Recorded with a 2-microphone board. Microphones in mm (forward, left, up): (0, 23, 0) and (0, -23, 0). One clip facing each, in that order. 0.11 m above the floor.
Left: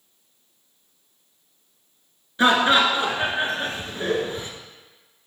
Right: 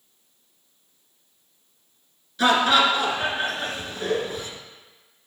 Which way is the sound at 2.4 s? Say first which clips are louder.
Left 1 dB; 25° left (ahead or behind).